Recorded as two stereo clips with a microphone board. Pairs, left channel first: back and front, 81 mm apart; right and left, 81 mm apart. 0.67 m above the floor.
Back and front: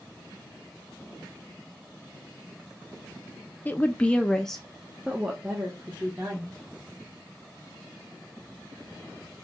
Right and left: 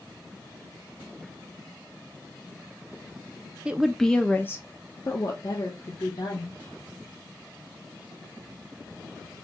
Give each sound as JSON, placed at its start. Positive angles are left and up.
{"t": 3.6, "sound": "a woman speaking", "azimuth_deg": 150, "distance_m": 0.6}